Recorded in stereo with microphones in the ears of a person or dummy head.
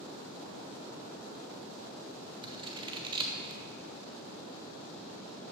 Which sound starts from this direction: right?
Scissors, at 2.4 s.